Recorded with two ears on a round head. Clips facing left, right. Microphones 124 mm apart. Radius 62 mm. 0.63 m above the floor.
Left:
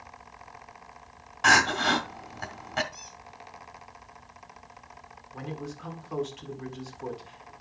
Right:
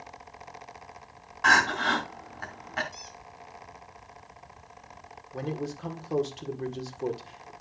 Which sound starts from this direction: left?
Crying, at 1.4 s.